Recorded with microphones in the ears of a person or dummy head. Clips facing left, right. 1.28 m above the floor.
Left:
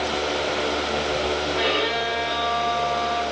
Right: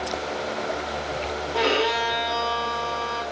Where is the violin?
75° right (ahead or behind), 1.3 m.